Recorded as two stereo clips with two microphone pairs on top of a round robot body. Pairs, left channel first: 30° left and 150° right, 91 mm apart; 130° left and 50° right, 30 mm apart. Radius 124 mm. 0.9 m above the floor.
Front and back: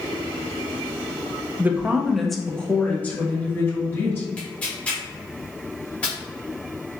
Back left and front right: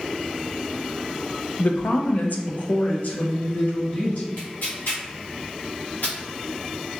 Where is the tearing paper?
105° left, 1.0 m.